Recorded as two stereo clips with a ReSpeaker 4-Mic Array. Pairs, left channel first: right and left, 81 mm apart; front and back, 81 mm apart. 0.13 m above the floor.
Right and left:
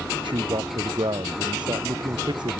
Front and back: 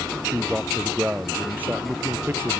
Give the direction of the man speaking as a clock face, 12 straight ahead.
9 o'clock.